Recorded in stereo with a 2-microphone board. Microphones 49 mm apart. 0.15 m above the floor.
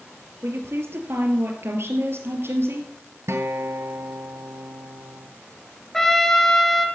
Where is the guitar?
70° right (ahead or behind), 1.2 m.